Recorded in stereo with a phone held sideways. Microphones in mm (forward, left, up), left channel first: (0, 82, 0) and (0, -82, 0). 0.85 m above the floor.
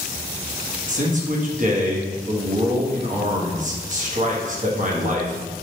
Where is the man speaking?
50° right (ahead or behind), 1.0 m.